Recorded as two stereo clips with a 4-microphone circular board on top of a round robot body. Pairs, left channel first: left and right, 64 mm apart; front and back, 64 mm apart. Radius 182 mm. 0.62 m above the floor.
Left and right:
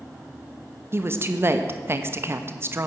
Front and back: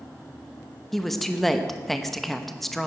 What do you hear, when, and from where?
0.9 s a woman speaking: 85° right, 1.4 m